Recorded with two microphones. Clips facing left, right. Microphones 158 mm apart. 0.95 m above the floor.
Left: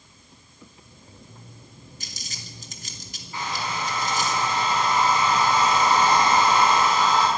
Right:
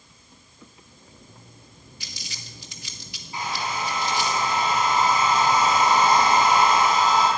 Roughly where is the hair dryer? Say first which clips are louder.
Right 1 dB; centre.